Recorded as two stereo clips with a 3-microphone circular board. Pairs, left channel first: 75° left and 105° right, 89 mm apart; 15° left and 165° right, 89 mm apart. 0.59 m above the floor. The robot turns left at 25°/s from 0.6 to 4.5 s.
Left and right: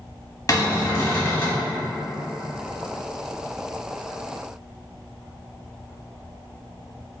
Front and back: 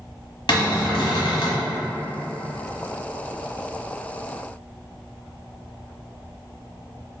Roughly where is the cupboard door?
Ahead left.